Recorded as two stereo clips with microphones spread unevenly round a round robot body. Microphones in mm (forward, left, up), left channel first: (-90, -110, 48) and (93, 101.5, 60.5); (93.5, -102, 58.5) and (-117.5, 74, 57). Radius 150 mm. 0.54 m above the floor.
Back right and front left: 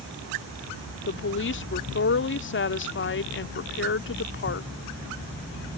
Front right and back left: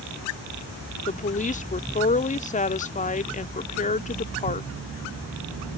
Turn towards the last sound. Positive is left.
turn(degrees=-100)